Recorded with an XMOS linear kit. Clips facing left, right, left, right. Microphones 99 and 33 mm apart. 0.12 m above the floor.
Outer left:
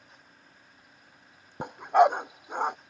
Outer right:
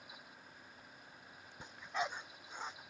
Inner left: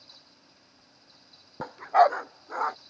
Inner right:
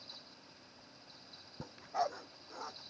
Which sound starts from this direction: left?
A dog barking, at 1.6 s.